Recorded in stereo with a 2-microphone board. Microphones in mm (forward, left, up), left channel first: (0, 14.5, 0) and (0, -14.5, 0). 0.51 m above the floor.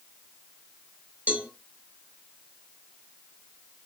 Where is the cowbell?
60° right (ahead or behind), 1.4 m.